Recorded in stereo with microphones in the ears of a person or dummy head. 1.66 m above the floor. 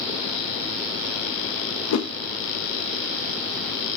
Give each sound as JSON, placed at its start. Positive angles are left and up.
{"t": 1.9, "sound": "a whoosh", "side_deg": 70, "distance_m": 0.8}